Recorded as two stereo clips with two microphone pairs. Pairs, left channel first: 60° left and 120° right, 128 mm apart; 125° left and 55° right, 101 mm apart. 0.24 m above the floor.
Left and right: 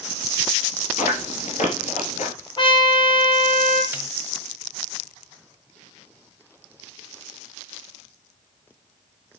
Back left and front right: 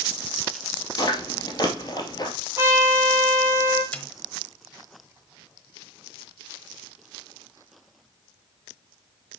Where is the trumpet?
10° left, 3.5 m.